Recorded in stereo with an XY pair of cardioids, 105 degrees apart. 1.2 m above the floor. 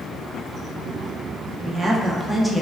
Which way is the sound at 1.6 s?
35° right.